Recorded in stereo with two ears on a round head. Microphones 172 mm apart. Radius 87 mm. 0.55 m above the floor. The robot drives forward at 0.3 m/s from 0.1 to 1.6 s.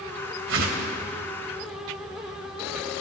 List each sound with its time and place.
0.5 s a whoosh: 70° right (ahead or behind), 3 m